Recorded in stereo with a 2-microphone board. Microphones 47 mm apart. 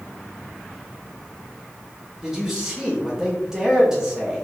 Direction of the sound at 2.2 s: 15° right (ahead or behind).